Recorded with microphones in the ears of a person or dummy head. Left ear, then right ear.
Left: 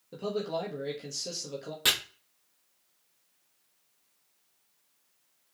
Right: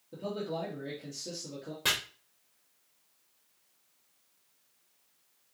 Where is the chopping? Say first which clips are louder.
Left 4 dB; 20° left (ahead or behind), 1.1 m.